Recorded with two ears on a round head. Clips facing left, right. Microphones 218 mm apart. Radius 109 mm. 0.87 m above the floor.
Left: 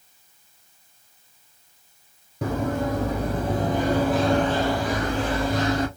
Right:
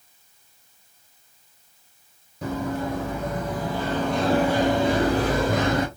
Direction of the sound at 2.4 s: 45° left (ahead or behind).